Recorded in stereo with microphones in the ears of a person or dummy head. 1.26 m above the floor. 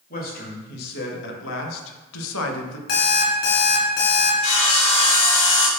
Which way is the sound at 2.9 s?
80° left.